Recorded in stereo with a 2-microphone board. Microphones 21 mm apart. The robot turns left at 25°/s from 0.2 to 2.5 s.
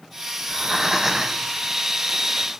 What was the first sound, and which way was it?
Breathing, 15° right (ahead or behind).